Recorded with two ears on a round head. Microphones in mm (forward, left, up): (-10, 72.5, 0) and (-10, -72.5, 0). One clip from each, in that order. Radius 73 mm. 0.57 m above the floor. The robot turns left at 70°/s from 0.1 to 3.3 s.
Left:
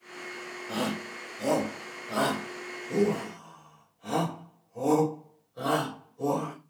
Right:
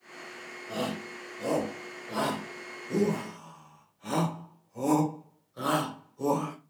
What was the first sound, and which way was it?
A shout, 30° left (ahead or behind).